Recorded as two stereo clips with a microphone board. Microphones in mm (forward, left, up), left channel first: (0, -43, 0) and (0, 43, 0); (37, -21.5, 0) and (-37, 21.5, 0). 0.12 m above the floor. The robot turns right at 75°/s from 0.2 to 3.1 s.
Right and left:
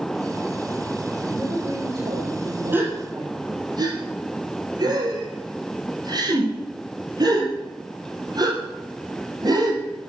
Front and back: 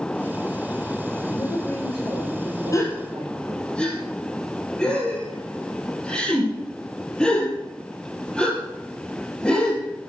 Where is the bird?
No bird in this recording.